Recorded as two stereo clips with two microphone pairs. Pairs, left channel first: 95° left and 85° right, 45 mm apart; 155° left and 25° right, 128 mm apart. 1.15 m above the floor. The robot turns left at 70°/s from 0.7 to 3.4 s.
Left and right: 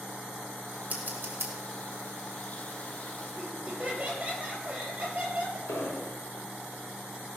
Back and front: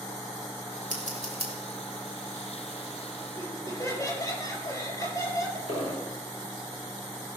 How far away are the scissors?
About 3 m.